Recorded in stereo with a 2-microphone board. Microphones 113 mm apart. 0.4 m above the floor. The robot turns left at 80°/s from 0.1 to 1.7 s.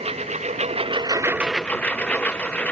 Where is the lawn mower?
65° right; by 2.7 s 165° left.